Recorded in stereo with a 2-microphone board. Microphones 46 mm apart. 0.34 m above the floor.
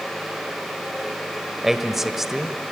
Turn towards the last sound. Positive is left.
turn(degrees=-5)  # may be behind; listen again after turning